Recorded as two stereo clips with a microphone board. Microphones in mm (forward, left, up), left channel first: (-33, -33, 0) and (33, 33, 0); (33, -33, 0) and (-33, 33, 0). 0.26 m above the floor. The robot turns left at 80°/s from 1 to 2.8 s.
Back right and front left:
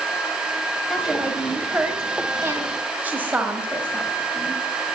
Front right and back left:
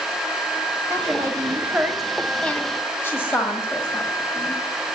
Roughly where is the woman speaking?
Behind left.